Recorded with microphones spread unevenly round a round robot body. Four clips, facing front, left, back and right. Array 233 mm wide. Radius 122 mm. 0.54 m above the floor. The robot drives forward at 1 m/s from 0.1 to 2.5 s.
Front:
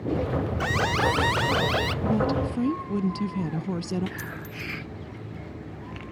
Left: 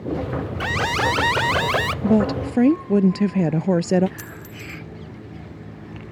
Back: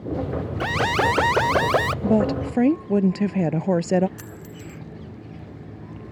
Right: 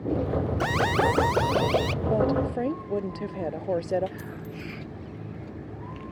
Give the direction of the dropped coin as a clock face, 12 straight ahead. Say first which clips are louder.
Even, front 2 dB; 8 o'clock.